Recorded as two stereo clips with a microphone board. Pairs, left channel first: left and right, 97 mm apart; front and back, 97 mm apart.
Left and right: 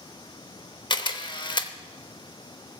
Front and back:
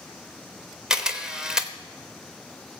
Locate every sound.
0.9 s a camera shutter: 100° left, 0.9 m